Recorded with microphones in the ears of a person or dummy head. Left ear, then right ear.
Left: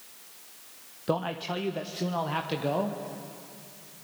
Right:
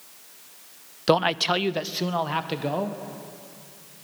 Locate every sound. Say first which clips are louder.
1.1 s a man speaking: right 10 dB; 70° right (ahead or behind), 0.7 m; by 3.0 s 5° right (ahead or behind), 1.3 m